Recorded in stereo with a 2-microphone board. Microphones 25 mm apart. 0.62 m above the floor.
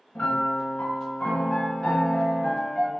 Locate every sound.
0.1 s a piano: 60° left (ahead or behind), 1.6 m